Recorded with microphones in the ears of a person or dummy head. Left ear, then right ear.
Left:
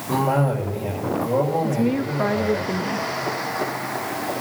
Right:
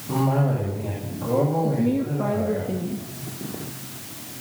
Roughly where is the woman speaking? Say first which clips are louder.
Left 1 dB; left.